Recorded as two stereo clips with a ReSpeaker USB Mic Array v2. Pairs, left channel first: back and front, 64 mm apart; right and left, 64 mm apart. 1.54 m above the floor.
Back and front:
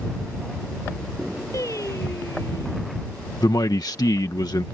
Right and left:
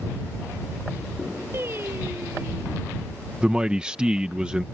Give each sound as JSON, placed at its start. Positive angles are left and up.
{"t": 1.5, "sound": "singing", "azimuth_deg": 145}
{"t": 3.4, "sound": "a man speaking", "azimuth_deg": 165}